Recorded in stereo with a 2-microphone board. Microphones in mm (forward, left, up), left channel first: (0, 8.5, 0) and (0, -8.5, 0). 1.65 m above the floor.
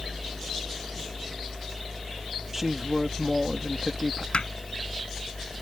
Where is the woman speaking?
15° right (ahead or behind).